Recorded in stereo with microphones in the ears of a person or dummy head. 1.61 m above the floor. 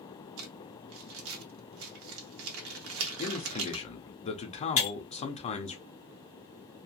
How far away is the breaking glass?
About 1.2 m.